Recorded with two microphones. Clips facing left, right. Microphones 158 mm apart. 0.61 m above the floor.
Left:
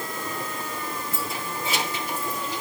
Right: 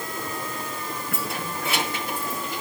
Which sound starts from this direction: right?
Keys jangling, at 1.1 s.